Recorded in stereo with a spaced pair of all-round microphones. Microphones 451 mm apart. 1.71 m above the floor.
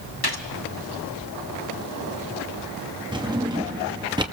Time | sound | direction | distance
0.2 | a gunshot | 55° left (ahead or behind) | 1.9 m
3.1 | a drawer | 10° right (ahead or behind) | 1.8 m